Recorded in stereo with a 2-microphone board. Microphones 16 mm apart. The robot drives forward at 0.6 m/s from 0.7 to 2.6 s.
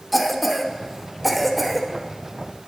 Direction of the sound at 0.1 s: 5° right (ahead or behind).